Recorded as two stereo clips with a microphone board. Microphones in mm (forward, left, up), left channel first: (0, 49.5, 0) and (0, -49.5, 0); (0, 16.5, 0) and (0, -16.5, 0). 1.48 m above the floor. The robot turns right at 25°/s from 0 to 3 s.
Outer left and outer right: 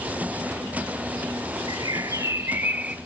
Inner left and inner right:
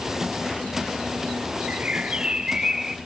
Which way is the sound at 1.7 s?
45° right.